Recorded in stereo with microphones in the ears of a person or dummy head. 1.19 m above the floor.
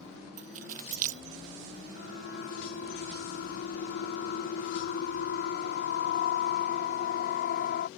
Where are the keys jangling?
45° right (ahead or behind).